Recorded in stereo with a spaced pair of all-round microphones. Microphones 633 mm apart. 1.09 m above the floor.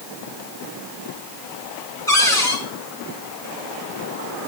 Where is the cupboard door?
5° left (ahead or behind), 3 m.